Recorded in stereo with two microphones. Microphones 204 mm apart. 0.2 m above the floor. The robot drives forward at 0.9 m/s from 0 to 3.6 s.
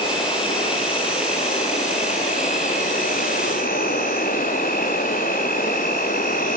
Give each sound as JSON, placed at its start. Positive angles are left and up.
{"t": 0.0, "sound": "an insect", "side_deg": 25, "distance_m": 7.0}